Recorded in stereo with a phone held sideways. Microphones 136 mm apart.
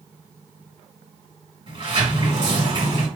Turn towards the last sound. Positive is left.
turn(degrees=-45)  # may be behind; listen again after turning